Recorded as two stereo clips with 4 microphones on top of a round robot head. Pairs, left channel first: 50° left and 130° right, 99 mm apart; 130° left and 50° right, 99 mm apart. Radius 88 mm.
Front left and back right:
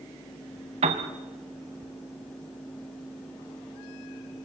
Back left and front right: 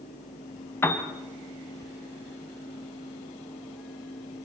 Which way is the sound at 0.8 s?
160° right.